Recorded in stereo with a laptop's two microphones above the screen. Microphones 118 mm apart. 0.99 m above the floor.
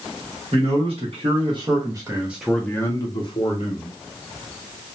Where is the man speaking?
60° right (ahead or behind), 1.2 m; by 3.9 s 60° left (ahead or behind), 0.9 m.